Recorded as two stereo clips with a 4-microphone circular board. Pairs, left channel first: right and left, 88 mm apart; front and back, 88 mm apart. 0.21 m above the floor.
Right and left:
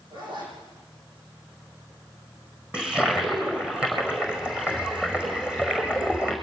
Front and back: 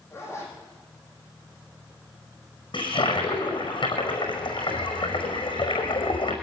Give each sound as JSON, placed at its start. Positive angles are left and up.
{"t": 0.1, "sound": "a zipper", "azimuth_deg": 55, "distance_m": 9.0}
{"t": 2.7, "sound": "a toilet flushing", "azimuth_deg": 15, "distance_m": 5.0}